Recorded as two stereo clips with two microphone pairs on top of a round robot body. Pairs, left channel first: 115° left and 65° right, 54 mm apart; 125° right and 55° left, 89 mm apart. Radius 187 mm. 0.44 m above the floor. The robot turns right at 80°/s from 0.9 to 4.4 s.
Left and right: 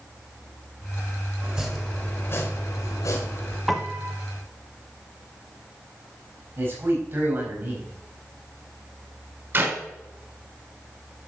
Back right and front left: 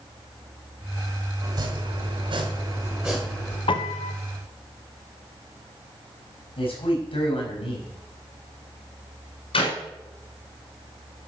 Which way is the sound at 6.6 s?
110° right.